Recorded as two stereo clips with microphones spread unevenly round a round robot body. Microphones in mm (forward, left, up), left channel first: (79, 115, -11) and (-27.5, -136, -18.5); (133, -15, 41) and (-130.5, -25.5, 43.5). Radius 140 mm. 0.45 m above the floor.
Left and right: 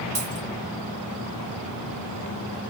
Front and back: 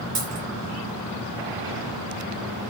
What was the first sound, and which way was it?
A dropped coin, 155° right.